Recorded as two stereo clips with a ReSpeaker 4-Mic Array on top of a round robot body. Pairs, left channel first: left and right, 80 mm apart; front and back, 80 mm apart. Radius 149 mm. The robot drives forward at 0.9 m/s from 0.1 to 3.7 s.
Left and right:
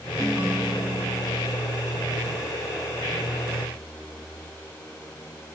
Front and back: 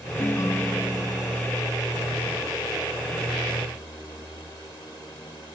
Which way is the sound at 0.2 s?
15° right.